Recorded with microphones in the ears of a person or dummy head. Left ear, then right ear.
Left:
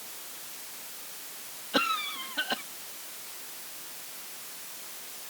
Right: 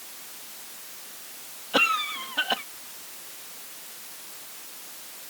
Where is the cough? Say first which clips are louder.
Right 5 dB; 35° right (ahead or behind).